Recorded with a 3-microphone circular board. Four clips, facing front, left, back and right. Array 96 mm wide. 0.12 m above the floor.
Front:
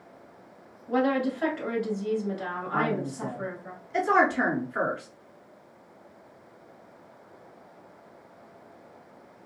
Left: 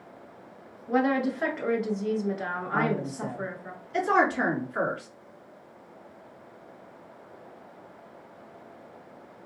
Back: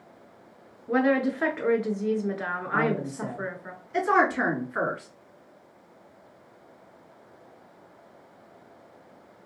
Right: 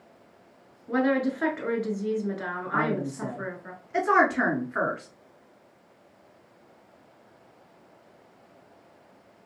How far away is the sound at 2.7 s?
About 1.6 m.